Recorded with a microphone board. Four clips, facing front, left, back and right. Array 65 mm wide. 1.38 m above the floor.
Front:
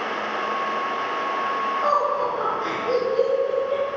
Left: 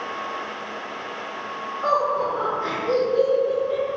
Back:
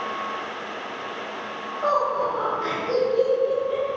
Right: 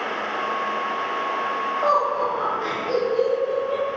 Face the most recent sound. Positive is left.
turn(degrees=-90)